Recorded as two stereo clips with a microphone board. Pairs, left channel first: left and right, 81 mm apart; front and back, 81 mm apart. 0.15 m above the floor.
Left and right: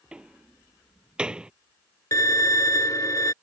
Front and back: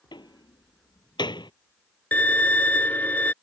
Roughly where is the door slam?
Ahead.